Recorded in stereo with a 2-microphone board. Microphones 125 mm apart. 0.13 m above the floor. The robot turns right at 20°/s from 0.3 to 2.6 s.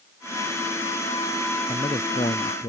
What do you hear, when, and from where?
1.7 s a man speaking: 45° left (ahead or behind); by 2.7 s 60° left (ahead or behind)